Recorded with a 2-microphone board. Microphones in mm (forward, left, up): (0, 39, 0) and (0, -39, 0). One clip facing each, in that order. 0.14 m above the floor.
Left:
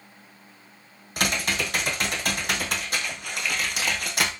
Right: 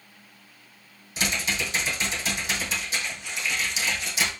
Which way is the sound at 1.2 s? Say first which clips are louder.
Left 2 dB; 60° left (ahead or behind).